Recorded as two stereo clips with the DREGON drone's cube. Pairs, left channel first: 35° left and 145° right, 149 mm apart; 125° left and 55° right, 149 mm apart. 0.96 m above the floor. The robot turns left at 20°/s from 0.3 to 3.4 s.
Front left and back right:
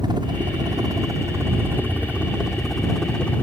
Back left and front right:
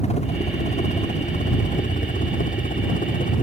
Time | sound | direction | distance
0.0 | a helicopter | 160° left | ?